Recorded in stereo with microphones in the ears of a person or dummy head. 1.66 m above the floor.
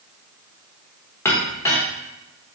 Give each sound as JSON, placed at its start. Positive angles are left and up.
{"t": 1.2, "sound": "a clink", "side_deg": 15, "distance_m": 1.1}